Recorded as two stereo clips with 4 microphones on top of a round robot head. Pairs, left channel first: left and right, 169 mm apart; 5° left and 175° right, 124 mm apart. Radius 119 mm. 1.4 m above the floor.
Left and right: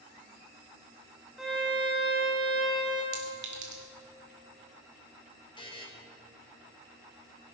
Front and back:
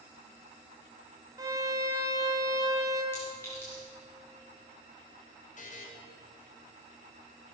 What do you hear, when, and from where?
1.4 s a violin: 175° right, 0.6 m
3.1 s a clink: 75° right, 1.7 m
5.6 s a buzzer: 25° left, 1.8 m